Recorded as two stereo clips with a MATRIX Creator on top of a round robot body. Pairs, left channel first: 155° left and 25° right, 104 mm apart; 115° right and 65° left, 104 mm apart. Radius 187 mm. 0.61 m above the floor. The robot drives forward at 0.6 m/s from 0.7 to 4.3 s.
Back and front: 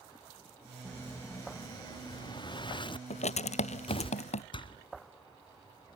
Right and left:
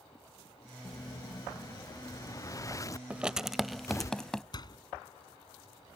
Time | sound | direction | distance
0.8 | an explosion | 140° right | ?
3.1 | writing | 145° left | ?
4.5 | a door slam | 160° right | ?